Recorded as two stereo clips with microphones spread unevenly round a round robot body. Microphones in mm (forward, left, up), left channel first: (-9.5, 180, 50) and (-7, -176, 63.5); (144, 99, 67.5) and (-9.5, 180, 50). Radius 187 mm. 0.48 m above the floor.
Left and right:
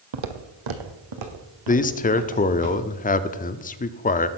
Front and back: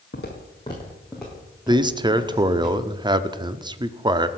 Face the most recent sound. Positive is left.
turn(degrees=130)